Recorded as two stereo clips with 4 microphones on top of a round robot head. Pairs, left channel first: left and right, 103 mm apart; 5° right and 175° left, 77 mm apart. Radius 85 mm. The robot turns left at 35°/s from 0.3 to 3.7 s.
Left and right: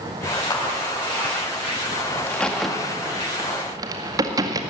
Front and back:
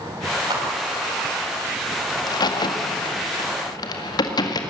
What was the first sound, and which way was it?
A clap, 140° left.